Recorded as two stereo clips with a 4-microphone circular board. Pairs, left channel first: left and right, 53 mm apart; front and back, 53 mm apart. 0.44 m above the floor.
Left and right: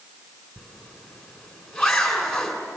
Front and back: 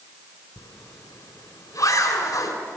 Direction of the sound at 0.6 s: Straight ahead.